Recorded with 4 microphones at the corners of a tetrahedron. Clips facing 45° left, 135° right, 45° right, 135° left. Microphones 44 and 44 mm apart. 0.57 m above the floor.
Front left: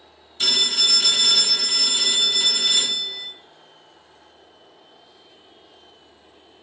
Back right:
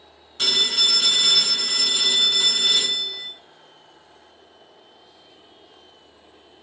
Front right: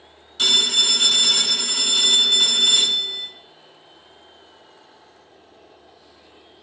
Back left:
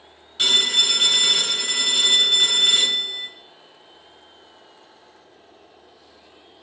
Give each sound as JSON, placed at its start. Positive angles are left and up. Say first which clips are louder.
{"t": 0.4, "sound": "a phone ringing", "louder": "back right 1 dB, even", "azimuth_deg": -150, "distance_m": 1.7}